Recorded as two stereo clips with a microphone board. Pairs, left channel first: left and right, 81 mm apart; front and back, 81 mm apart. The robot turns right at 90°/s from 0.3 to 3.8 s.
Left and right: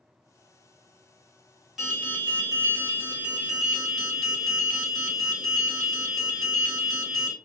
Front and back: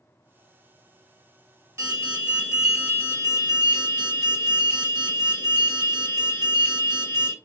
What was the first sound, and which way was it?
An alarm, 175° right.